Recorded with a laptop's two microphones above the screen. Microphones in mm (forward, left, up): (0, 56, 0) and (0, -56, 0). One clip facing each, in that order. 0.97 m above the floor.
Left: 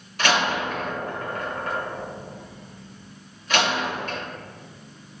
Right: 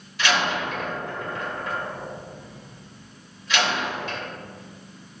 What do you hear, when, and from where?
0.2 s a door slam: 50° left (ahead or behind), 2.5 m